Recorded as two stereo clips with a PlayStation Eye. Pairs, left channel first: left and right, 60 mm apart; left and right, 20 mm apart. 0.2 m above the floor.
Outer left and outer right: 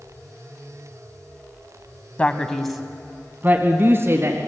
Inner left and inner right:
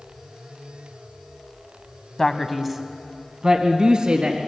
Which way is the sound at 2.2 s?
25° left (ahead or behind).